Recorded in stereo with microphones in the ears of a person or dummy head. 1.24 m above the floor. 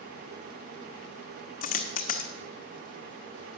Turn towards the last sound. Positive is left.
turn(degrees=50)  # may be behind; listen again after turning